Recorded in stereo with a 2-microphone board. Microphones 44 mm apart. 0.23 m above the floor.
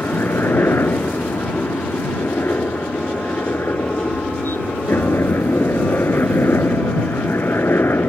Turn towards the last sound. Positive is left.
turn(degrees=65)  # may be behind; listen again after turning